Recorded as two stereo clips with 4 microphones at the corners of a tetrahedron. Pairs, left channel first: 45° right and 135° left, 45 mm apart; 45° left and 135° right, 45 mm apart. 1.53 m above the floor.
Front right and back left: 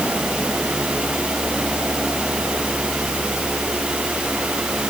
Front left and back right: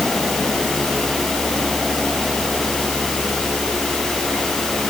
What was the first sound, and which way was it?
Only background noise.